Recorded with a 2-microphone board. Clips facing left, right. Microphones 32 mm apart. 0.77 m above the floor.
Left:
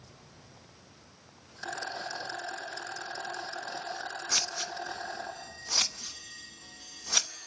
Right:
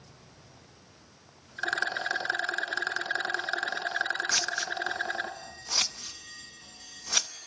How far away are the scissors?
About 0.8 m.